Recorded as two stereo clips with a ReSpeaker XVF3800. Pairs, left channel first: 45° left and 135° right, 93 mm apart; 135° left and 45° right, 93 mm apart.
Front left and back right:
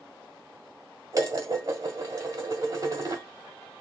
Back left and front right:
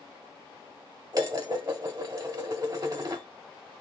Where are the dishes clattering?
85° right, 1.5 m.